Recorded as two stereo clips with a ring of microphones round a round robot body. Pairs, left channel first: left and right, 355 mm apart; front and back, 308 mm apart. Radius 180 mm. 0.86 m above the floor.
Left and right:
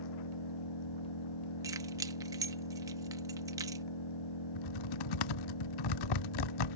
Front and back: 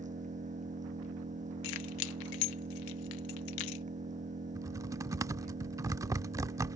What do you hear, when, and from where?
0.0 s an engine running: 115° left
1.6 s keys jangling: 10° right
4.5 s typing on a keyboard: 100° left